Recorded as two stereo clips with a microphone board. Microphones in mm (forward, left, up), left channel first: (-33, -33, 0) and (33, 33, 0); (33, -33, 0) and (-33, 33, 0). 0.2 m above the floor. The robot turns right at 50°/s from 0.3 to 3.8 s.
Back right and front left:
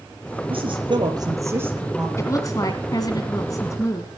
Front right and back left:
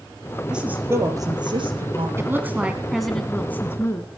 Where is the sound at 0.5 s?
55° left, 4 m; by 2.1 s 130° left, 4 m.